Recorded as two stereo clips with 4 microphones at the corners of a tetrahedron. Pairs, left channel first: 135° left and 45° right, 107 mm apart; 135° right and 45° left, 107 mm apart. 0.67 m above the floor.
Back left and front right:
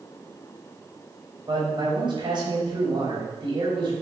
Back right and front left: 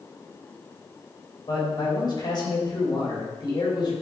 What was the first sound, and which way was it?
A man speaking, 90° right.